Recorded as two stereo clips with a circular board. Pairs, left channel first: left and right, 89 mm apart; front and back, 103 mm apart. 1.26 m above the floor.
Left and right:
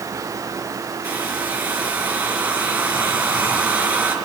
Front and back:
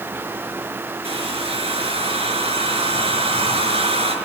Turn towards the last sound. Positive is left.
turn(degrees=-160)